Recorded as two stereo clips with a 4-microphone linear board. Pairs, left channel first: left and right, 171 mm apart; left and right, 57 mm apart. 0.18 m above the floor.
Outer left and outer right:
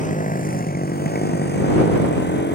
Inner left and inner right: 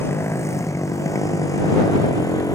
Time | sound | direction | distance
0.0 | a motorcycle | 50° left (ahead or behind) | ?